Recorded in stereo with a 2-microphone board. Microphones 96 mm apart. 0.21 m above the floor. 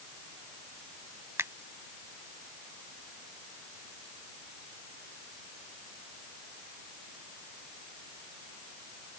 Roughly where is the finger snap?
Right.